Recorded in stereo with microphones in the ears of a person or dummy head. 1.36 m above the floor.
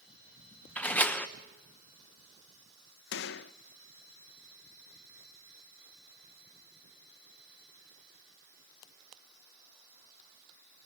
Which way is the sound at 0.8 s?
5° left (ahead or behind).